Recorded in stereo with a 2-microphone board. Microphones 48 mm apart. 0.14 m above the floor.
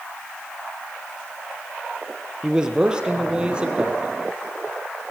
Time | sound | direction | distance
2.4 | a man speaking | 15° right (ahead or behind) | 3.5 m